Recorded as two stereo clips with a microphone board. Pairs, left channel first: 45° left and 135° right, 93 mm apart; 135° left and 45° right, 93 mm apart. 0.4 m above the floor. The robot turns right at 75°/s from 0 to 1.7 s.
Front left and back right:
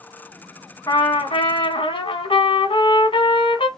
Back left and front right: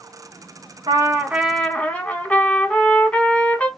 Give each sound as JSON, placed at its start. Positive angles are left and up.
{"t": 0.9, "sound": "a trumpet", "azimuth_deg": -5, "distance_m": 0.9}